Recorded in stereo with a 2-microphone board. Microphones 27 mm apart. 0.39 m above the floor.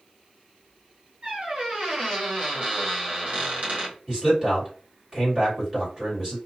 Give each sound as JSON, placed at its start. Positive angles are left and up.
{"t": 1.2, "sound": "a squeak", "side_deg": -50, "distance_m": 1.2}
{"t": 4.1, "sound": "a man speaking", "side_deg": -35, "distance_m": 1.7}